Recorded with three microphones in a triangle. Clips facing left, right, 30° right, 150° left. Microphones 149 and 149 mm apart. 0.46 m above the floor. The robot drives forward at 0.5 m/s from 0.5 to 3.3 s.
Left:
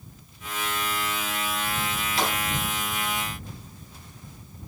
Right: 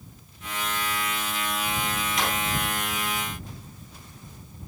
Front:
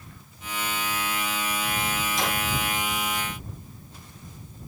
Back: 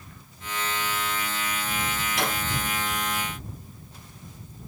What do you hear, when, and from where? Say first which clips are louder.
2.2 s a drawer: left 3 dB, back 1 dB; 145° left, 6.5 m